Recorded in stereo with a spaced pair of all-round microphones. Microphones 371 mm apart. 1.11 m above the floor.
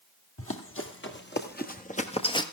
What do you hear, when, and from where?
0.4 s running footsteps: 35° left (ahead or behind), 2.0 m; by 2.4 s 10° left (ahead or behind), 1.2 m